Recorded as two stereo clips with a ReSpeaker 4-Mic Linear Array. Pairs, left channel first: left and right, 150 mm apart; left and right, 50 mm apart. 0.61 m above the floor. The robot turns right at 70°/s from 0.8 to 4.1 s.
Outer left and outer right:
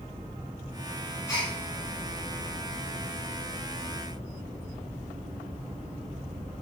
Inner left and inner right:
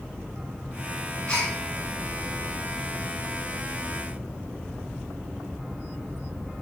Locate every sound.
1.3 s a gasp: 20° left (ahead or behind), 3.5 m; by 1.5 s 40° left (ahead or behind), 3.5 m